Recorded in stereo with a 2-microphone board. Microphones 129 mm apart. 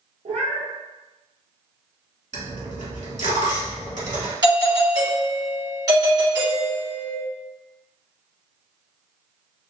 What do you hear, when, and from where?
0.2 s a cat meowing: 65° right (ahead or behind), 0.8 m
2.3 s a dropped coin: 70° right (ahead or behind), 1.1 m
4.4 s a doorbell: 30° right (ahead or behind), 1.6 m